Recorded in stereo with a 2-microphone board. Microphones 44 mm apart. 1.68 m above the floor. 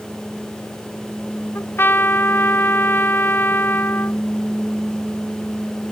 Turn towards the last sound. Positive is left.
turn(degrees=60)  # may be behind; listen again after turning